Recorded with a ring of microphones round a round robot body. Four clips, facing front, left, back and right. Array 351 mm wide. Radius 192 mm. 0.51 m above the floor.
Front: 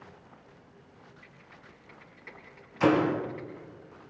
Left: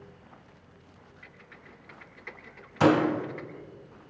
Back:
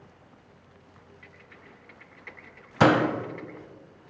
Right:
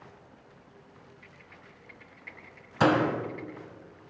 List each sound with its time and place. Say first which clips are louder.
1.2 s typing on a keyboard: left 1 dB, back 2 dB; 115° left, 7.5 m
2.8 s a door slam: left 2 dB, back 3 dB; 175° right, 3 m